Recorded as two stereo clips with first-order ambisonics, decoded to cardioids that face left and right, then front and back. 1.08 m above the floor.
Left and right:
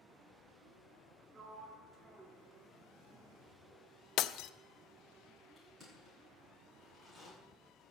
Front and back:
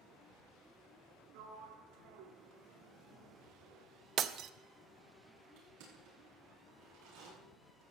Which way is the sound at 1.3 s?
170° right.